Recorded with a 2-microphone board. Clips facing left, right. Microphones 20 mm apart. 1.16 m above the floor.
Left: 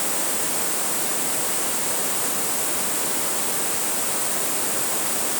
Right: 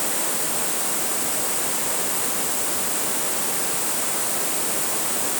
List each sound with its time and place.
Only background noise.